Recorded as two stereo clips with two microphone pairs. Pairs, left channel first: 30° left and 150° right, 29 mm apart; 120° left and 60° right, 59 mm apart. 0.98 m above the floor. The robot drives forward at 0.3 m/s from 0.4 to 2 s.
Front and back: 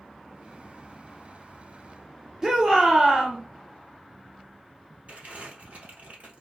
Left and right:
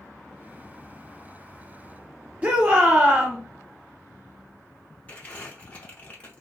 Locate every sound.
2.4 s a shout: 95° right, 0.5 m
5.1 s crumpling: straight behind, 1.0 m